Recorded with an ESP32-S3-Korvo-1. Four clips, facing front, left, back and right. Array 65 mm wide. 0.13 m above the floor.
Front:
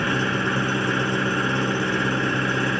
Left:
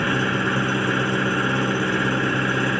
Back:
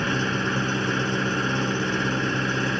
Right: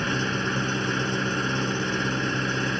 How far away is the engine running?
About 0.7 m.